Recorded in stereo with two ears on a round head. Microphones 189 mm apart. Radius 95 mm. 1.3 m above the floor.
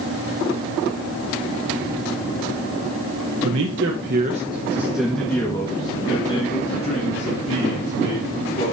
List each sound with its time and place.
3.4 s a man speaking: 75° right (ahead or behind), 1.3 m; by 8.7 s 40° left (ahead or behind), 4.5 m